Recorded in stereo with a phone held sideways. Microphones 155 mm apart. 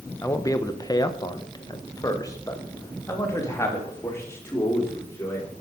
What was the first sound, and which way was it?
A man speaking, 20° left (ahead or behind).